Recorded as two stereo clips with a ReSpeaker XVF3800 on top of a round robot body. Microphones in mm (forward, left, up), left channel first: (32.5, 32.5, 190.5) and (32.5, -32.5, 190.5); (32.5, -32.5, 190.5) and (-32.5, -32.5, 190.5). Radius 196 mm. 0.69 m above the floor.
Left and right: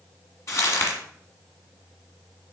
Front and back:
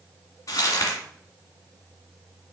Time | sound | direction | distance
0.5 | crumpling | 45° left | 1.9 m